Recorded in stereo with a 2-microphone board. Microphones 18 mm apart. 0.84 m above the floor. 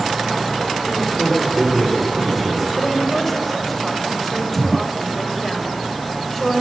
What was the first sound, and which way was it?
A man speaking, 5° left (ahead or behind).